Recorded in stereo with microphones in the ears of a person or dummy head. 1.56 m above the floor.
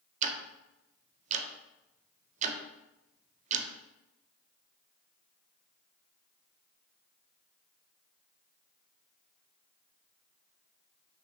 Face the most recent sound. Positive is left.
turn(degrees=-45)  # may be behind; listen again after turning